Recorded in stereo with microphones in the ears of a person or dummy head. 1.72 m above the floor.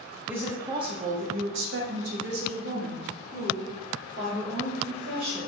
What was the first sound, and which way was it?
A woman speaking, 5° right (ahead or behind).